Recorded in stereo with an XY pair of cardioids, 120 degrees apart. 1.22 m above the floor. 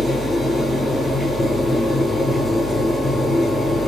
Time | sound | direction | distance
0.0 | a machine running | 10° left | 2 m